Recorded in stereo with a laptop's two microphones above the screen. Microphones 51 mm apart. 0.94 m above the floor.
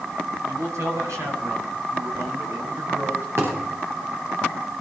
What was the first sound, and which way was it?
A man speaking, 80° right.